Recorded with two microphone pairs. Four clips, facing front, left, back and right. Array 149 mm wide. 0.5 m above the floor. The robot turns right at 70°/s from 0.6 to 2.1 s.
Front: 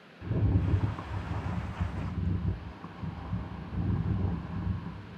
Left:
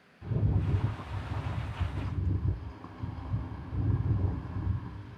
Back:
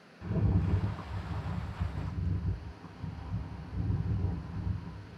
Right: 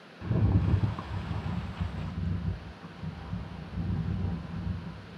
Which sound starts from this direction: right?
A rattle, at 0.2 s.